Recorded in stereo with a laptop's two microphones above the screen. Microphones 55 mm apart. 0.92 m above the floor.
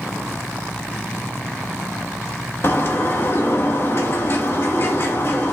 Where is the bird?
45° left (ahead or behind), 1.5 m.